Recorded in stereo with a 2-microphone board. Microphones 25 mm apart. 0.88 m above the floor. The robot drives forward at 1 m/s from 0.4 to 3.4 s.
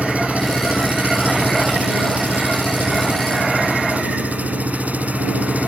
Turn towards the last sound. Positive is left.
turn(degrees=-80)